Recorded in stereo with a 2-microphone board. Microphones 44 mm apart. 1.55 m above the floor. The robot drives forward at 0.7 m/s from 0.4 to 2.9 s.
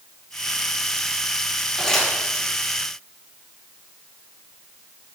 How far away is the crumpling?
About 4 m.